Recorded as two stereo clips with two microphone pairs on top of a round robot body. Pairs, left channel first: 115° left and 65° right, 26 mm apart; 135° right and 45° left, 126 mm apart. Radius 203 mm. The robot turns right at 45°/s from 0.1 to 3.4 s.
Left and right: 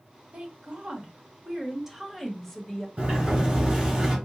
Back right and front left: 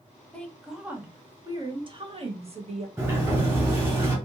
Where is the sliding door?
25° right, 2.5 m; by 4.2 s 5° right, 2.5 m.